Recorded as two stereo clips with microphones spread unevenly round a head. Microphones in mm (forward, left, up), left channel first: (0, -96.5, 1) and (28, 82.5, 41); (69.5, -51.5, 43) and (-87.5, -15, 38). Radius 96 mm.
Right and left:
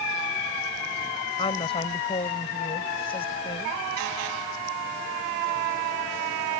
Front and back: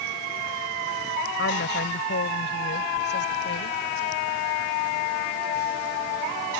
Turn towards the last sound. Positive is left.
turn(degrees=-35)